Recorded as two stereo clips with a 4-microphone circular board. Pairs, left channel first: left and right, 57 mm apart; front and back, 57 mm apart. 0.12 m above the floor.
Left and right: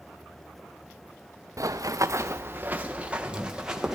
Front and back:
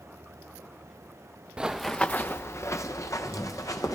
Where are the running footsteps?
105° right, 0.7 m; by 4.0 s 10° right, 1.9 m.